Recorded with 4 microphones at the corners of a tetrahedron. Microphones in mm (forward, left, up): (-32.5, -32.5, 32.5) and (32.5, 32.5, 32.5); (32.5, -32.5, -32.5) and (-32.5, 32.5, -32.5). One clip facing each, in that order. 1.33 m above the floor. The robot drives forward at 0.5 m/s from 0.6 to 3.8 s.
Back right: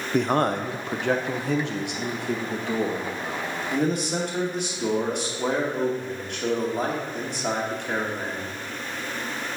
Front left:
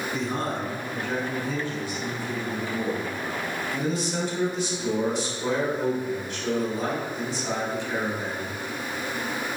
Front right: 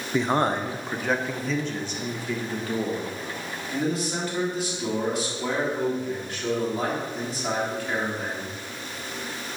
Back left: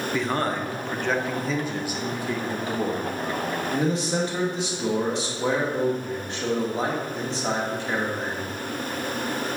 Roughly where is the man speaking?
Behind right.